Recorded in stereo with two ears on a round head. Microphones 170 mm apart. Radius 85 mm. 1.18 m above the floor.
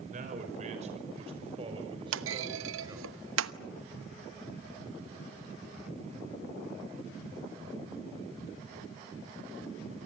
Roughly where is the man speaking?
Right.